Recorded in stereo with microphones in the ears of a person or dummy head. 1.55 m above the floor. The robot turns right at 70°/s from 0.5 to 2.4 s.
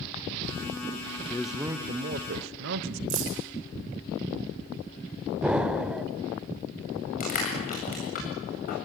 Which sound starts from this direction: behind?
A man speaking, at 1.3 s.